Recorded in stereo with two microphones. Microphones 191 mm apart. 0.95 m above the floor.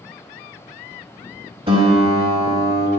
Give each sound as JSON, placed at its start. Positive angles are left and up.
{"t": 1.7, "sound": "a guitar", "side_deg": -30, "distance_m": 1.1}